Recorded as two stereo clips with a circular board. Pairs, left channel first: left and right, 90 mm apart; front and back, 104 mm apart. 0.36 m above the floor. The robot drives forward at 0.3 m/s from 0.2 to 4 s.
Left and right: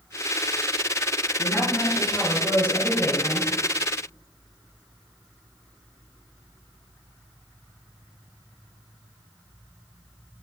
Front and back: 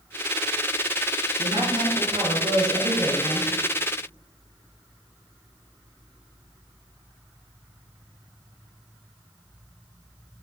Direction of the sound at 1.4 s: 155° left.